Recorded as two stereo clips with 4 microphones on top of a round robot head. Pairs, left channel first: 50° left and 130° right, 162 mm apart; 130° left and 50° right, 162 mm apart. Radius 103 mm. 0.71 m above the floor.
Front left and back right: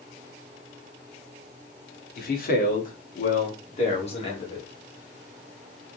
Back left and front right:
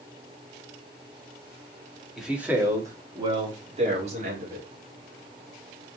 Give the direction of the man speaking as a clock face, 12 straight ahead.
11 o'clock.